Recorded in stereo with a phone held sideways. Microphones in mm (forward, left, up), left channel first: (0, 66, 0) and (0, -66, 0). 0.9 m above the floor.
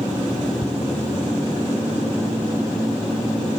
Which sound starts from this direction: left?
Ticking, at 0.6 s.